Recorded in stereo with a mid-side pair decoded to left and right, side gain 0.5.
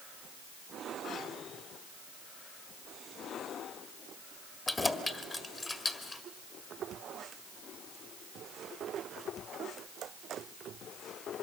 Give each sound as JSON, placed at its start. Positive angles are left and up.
{"t": 4.7, "sound": "keys jangling", "azimuth_deg": 25, "distance_m": 1.8}